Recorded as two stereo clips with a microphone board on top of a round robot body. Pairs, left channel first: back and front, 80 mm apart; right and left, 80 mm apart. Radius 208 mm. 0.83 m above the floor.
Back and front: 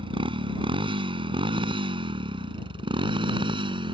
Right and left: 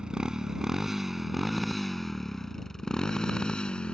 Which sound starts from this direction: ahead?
A motorcycle, at 0.0 s.